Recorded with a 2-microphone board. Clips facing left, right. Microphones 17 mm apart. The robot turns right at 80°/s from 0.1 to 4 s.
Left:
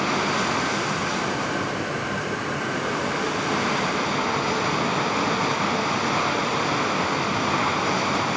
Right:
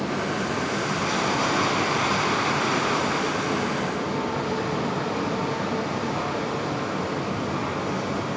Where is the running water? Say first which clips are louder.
Left 4 dB; 110° left, 1.0 m; by 8.4 s 60° left, 1.0 m.